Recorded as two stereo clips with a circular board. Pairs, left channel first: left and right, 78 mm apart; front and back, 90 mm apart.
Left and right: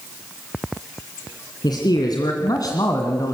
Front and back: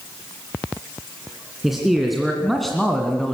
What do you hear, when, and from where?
1.6 s a man speaking: 95° left, 2.5 m; by 3.4 s 80° left, 1.9 m